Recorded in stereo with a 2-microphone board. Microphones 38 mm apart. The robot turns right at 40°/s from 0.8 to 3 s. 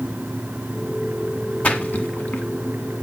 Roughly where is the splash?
Left.